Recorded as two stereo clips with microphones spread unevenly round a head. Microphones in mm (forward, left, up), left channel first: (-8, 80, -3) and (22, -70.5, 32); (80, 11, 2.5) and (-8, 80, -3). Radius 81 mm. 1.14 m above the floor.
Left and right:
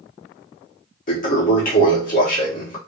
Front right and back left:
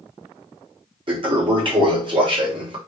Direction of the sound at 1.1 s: 105° left.